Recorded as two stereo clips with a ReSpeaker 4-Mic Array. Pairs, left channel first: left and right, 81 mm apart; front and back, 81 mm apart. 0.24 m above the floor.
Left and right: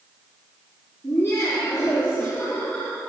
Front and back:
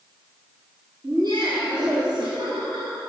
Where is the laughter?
150° left, 5 m; by 3.0 s 170° left, 3 m.